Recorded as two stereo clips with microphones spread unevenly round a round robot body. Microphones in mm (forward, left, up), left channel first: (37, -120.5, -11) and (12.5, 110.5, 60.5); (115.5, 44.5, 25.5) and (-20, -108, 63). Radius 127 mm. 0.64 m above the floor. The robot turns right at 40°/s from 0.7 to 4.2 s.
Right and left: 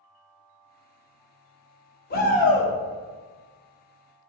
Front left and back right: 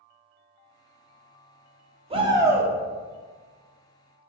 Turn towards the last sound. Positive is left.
turn(degrees=20)